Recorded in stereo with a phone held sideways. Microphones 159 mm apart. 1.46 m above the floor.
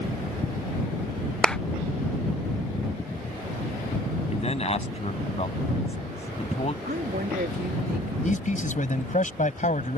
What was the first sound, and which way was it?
A clap, 5° left (ahead or behind).